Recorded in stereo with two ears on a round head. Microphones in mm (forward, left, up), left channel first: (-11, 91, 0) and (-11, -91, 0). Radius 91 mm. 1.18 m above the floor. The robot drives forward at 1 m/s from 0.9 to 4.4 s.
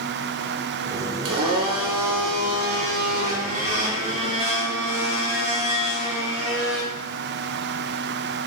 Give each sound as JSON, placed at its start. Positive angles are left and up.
{"t": 1.2, "sound": "a blender", "side_deg": -80, "distance_m": 2.0}